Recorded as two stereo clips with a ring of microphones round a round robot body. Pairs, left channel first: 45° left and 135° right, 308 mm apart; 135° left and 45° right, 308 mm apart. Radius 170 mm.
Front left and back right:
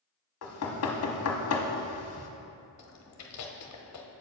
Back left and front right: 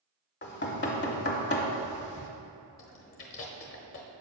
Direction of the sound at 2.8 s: 85° left.